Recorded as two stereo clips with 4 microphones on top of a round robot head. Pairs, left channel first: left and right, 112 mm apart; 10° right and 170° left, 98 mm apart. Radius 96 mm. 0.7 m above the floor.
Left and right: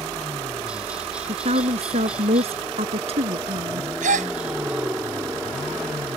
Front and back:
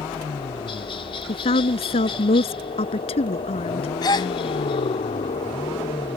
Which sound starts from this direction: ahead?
A helicopter, at 0.0 s.